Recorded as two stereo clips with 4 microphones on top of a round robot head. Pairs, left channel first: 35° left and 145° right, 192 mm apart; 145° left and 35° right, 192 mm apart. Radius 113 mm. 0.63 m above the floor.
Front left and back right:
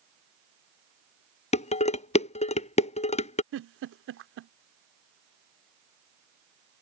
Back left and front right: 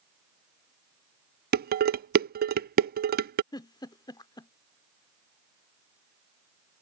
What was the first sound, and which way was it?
Dishes clattering, 10° right.